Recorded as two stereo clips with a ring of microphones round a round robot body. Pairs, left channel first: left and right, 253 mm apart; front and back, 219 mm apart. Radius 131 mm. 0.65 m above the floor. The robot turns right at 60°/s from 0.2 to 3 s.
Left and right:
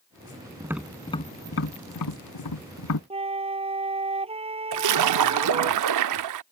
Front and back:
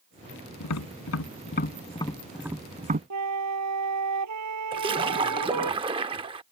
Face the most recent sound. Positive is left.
turn(degrees=-110)